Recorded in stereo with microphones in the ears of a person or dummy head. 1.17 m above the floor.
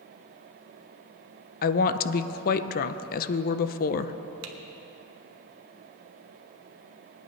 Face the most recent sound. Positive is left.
turn(degrees=-70)  # may be behind; listen again after turning